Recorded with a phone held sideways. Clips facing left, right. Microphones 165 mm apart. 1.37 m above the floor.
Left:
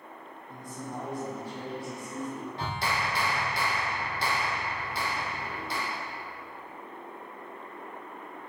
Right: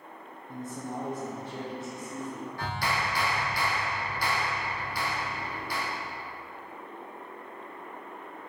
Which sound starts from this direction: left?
A clap, at 2.6 s.